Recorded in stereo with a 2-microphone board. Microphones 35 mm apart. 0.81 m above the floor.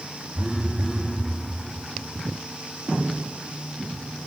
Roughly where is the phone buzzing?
Centre.